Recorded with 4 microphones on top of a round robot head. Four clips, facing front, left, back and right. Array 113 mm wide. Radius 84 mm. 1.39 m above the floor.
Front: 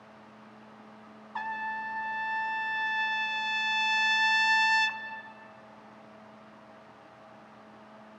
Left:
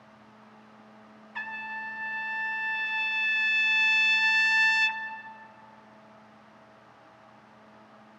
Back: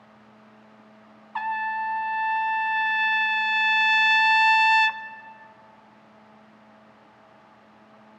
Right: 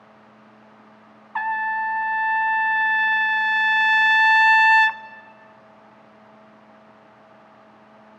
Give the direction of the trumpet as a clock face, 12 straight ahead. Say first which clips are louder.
Right 14 dB, back 7 dB; 4 o'clock.